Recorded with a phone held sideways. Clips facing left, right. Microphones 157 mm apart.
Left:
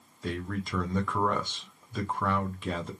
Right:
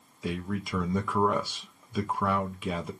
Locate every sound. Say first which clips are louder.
0.2 s a man speaking: right 1 dB; 5° right (ahead or behind), 0.7 m